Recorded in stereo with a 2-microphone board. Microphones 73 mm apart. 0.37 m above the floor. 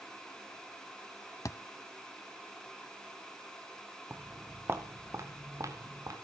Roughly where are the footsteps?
Centre.